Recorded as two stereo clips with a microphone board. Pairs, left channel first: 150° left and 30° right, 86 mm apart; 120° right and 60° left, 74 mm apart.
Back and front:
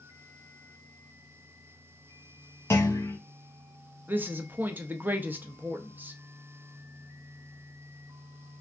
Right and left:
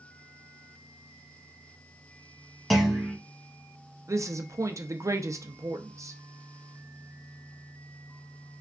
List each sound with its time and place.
2.7 s a clunk: 150° left, 1.1 m
4.1 s a woman speaking: 30° left, 0.5 m